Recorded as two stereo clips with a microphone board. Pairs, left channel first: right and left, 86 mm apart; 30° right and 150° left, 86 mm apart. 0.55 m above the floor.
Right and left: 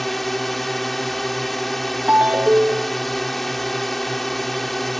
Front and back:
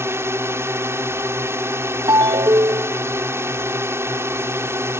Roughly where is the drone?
Behind.